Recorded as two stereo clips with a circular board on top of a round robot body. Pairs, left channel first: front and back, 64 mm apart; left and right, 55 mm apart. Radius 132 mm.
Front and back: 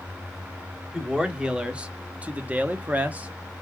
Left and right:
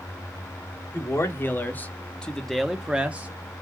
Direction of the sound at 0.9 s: 105° left.